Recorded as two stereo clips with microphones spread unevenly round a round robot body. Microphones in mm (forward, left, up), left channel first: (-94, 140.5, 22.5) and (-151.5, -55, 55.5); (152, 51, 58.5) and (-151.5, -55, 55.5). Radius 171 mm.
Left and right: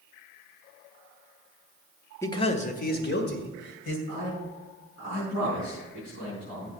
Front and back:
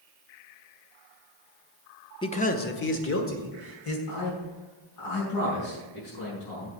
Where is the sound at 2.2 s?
70° left, 0.9 m; by 4.0 s 65° left, 2.5 m.